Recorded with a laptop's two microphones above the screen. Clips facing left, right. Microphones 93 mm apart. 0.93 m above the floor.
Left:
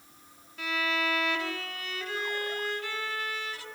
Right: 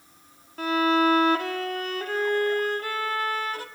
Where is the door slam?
No door slam in this recording.